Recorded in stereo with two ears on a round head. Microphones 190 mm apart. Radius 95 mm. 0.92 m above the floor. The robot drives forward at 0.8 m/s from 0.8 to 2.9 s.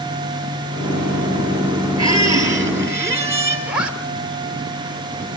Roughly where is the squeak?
Centre.